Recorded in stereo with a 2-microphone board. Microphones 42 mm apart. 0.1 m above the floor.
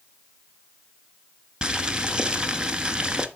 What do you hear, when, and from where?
1.6 s boiling: 20° right (ahead or behind), 0.9 m